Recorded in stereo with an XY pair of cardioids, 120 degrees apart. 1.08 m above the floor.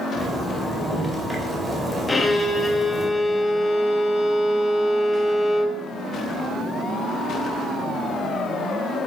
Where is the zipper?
5° left, 3 m.